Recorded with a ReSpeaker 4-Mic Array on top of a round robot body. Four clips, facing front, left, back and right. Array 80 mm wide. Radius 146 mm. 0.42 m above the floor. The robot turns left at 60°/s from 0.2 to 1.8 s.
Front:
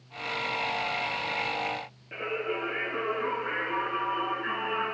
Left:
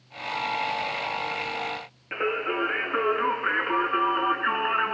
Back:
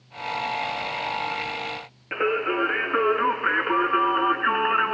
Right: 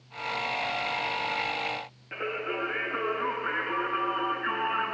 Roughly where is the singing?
Behind.